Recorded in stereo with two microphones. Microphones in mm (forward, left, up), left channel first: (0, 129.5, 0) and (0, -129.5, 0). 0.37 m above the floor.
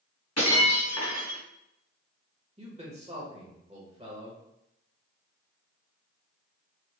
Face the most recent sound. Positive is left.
turn(degrees=-25)  # may be behind; listen again after turning